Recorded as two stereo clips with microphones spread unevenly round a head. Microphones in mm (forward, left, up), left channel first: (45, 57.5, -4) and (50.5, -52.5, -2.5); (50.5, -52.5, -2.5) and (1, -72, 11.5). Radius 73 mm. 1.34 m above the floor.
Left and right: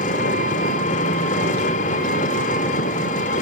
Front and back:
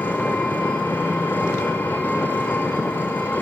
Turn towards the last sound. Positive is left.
turn(degrees=100)